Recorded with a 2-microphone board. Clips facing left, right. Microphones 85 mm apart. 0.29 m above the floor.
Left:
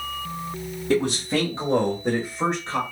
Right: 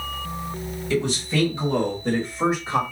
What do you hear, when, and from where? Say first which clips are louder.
0.9 s a man speaking: left 2 dB; 55° left (ahead or behind), 2 m; by 2.8 s 20° right (ahead or behind), 1.4 m